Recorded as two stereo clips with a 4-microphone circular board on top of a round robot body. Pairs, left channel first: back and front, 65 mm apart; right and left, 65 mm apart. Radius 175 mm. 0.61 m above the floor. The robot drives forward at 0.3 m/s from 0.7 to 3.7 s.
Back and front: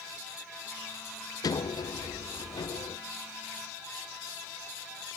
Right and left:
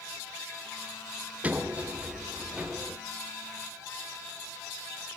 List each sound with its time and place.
1.4 s a sliding door: 155° left, 0.7 m; by 3.0 s 165° left, 1.1 m